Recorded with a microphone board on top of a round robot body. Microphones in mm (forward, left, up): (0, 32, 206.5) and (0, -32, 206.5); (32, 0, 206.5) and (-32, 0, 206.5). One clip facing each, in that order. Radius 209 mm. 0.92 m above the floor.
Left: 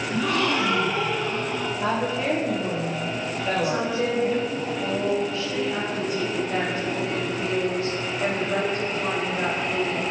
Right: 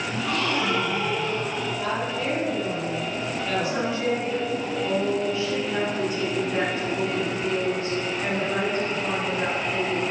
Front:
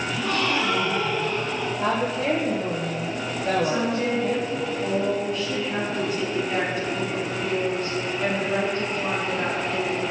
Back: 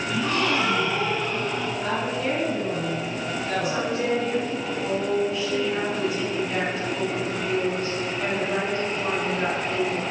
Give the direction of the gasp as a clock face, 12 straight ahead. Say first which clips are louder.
Left 3 dB, back 2 dB; 8 o'clock.